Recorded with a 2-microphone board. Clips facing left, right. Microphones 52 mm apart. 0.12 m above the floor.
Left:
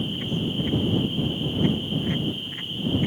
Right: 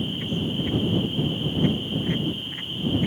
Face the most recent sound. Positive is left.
No sound to turn to.